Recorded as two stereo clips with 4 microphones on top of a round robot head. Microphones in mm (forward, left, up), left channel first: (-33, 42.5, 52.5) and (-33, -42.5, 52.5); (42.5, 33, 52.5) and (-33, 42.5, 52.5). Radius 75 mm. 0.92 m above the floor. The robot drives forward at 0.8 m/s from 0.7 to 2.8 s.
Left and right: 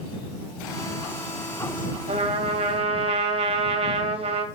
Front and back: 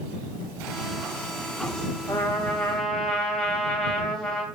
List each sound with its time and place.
2.1 s a trumpet: 75° right, 2.5 m; by 4.5 s 90° right, 2 m